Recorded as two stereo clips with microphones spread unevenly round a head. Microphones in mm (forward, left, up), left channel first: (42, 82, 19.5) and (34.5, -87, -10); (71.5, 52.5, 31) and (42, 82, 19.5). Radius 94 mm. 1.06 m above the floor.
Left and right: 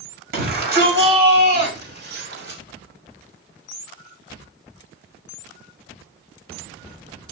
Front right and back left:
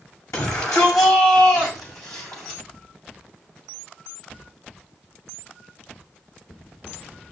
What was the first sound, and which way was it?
A shout, 65° right.